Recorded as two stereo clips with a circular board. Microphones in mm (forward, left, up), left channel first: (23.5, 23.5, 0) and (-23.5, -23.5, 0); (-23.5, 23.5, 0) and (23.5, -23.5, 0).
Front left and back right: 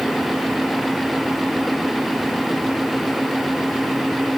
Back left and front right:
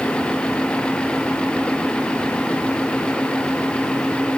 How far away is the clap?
I don't hear a clap.